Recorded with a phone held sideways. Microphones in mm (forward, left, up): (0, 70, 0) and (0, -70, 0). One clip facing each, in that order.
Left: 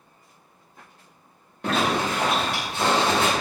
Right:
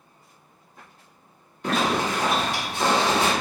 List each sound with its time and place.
1.6 s a zipper: 70° left (ahead or behind), 1.7 m